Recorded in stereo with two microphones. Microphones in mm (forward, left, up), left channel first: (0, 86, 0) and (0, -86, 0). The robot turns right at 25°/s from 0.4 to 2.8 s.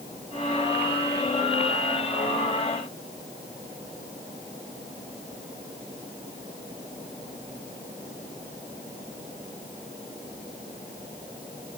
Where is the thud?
I don't hear a thud.